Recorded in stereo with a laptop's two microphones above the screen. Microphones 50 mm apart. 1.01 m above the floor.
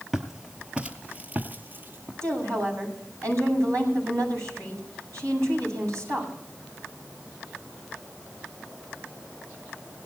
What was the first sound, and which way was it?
Footsteps, 5° right (ahead or behind).